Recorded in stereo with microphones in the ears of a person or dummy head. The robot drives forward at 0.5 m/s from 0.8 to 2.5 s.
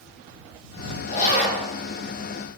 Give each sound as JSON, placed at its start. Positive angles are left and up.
{"t": 1.1, "sound": "a zipper", "side_deg": 40, "distance_m": 2.0}